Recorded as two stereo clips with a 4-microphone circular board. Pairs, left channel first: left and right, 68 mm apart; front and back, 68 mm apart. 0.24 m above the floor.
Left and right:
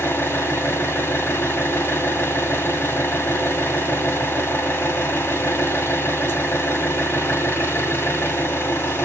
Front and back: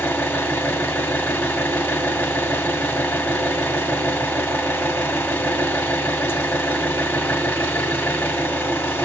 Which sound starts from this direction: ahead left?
An engine running, at 0.0 s.